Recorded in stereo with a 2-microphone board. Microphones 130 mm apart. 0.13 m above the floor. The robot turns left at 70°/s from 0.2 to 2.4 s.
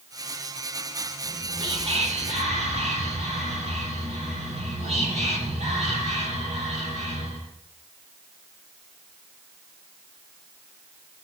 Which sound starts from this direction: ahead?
Whispering, at 1.2 s.